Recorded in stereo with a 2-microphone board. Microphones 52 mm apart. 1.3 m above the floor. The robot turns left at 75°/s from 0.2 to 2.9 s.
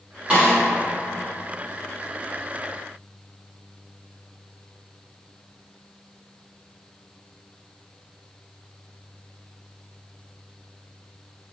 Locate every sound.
0.3 s a snare drum: 25° right (ahead or behind), 1.6 m; by 0.6 s 5° right (ahead or behind), 1.6 m